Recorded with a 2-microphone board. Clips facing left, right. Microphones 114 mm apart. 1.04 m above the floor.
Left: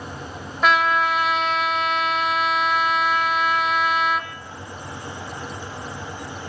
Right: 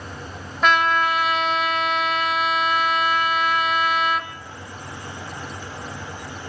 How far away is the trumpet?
About 1.6 m.